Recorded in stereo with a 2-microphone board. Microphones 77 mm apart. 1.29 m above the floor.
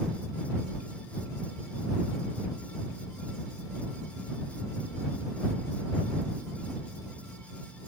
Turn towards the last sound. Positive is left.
No sound to turn to.